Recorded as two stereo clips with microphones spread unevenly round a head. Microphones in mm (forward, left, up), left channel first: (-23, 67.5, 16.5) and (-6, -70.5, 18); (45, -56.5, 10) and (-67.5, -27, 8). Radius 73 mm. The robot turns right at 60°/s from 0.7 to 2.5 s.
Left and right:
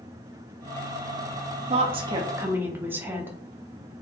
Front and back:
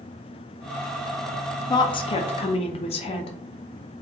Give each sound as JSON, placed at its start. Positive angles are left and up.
{"t": 1.7, "sound": "a woman speaking", "azimuth_deg": -60, "distance_m": 0.5}